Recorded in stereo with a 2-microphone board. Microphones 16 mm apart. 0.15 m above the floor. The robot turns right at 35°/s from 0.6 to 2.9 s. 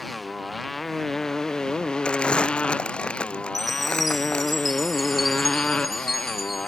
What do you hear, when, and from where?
0.0 s a motorcycle: 10° left (ahead or behind); by 6.7 s 85° left
2.0 s crumpling: 75° left (ahead or behind)
3.5 s a chime: centre (ahead or behind)